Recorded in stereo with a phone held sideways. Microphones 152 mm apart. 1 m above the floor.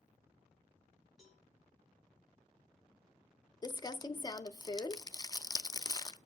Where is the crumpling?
25° left (ahead or behind), 0.5 m.